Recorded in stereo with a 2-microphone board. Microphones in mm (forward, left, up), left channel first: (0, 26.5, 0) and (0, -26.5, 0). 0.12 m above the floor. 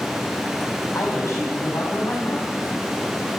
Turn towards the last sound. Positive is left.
turn(degrees=75)  # may be behind; listen again after turning